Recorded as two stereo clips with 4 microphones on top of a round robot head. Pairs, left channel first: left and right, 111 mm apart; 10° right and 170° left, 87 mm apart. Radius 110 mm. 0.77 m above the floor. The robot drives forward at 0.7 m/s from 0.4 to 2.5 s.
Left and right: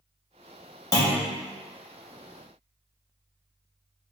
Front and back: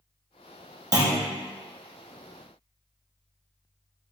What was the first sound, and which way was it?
A clunk, 140° left.